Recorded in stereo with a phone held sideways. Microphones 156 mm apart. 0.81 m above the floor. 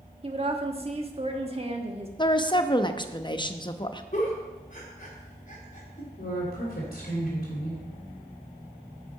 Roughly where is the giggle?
Left.